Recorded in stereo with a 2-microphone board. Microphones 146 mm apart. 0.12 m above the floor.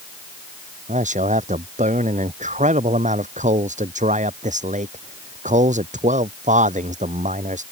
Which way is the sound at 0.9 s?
55° right (ahead or behind).